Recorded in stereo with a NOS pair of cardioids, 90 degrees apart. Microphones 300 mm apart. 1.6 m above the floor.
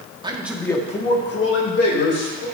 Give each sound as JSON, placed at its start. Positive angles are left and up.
{"t": 0.2, "sound": "a man speaking", "azimuth_deg": -15, "distance_m": 1.3}